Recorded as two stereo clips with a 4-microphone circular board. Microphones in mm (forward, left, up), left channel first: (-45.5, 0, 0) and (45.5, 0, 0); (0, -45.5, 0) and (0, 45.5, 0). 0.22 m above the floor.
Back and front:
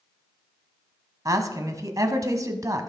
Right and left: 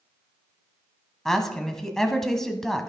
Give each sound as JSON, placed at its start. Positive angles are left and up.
{"t": 1.2, "sound": "a woman speaking", "azimuth_deg": -5, "distance_m": 1.2}